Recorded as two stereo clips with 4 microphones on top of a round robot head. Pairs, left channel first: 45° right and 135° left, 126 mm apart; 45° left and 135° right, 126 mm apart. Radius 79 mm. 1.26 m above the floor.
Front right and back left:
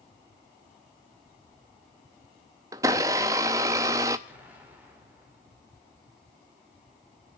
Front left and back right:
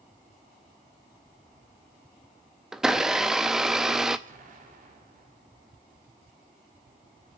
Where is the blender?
145° left, 0.6 m.